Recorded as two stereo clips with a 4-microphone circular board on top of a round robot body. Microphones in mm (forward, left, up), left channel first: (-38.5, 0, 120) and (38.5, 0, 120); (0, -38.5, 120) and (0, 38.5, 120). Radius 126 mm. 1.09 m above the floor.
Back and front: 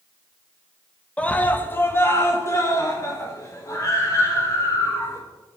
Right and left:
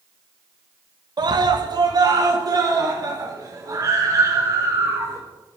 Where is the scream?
105° left, 1.7 m; by 5.2 s 135° left, 6.5 m.